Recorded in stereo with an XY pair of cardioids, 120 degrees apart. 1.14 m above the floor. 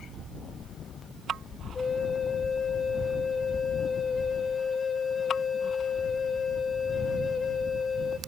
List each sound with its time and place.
1.8 s a flute: 30° left, 1.7 m